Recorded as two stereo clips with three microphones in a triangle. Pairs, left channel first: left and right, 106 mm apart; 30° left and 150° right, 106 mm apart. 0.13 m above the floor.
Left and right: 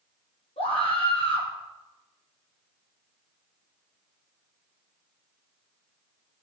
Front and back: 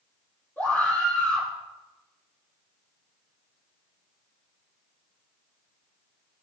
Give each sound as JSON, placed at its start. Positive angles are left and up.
{"t": 0.6, "sound": "a scream", "azimuth_deg": 105, "distance_m": 5.0}